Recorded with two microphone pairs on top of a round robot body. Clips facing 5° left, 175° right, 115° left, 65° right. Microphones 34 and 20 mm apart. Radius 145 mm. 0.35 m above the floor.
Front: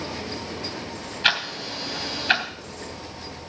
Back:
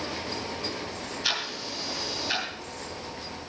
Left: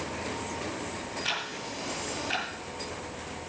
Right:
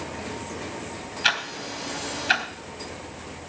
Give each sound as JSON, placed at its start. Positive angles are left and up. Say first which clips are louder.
{"t": 1.2, "sound": "ticking", "louder": "front 8 dB, right 10 dB", "azimuth_deg": -35, "distance_m": 3.0}